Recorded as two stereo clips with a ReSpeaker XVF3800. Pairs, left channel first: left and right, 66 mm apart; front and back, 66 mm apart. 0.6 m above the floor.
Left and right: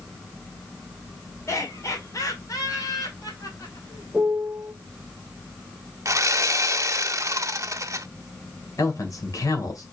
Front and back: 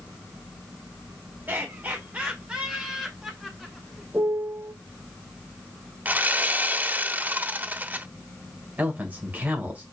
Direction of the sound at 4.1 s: 160° right.